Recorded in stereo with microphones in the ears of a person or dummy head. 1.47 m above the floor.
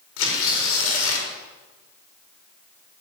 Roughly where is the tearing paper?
Left.